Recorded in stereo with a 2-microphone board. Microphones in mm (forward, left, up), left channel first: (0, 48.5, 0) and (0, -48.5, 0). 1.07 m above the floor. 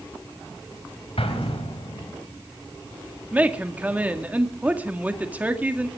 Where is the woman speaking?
15° right (ahead or behind), 1.9 m.